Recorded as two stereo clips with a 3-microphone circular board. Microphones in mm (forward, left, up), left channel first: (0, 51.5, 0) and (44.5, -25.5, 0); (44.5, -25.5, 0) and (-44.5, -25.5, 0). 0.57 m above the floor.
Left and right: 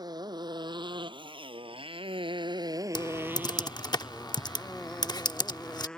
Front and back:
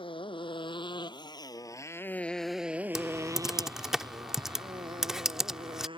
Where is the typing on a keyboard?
95° left.